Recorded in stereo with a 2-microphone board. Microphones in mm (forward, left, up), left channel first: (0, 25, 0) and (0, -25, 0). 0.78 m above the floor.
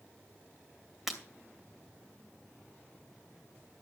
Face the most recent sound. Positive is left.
turn(degrees=-5)  # may be behind; listen again after turning